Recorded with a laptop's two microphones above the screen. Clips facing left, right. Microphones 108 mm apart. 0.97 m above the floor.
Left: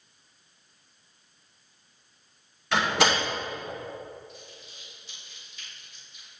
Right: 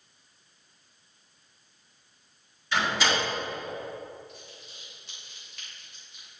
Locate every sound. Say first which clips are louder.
2.7 s a door slam: left 3 dB; 75° left (ahead or behind), 2.5 m
4.3 s crumpling: left 1 dB; 70° right (ahead or behind), 3 m